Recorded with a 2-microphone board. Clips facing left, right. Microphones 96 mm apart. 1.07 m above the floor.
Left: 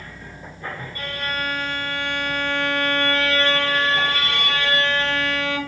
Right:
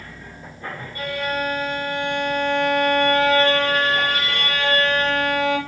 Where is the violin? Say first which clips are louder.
Right 5 dB; 10° right (ahead or behind), 1.5 m.